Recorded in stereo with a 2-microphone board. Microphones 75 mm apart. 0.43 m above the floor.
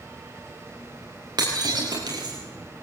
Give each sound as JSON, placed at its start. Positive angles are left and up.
{"t": 1.4, "sound": "breaking glass", "side_deg": -70, "distance_m": 6.5}